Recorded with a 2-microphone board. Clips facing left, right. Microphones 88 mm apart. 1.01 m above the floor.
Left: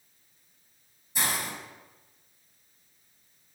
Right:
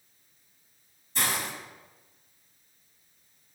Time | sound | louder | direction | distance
1.1 | a hiss | right 1 dB | 15° left (ahead or behind) | 6.5 m